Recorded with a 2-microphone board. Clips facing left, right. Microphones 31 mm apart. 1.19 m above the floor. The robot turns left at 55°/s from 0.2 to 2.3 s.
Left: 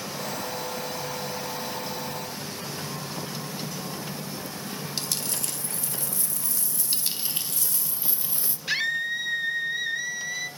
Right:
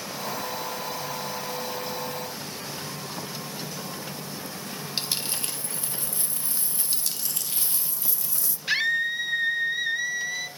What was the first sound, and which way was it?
A dropped coin, 30° right (ahead or behind).